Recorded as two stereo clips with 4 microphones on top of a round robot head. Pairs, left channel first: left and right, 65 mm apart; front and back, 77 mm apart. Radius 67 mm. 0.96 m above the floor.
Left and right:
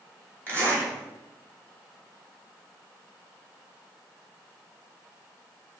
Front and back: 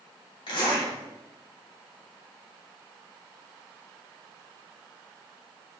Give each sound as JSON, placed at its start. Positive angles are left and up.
{"t": 0.5, "sound": "a zipper", "azimuth_deg": -35, "distance_m": 3.5}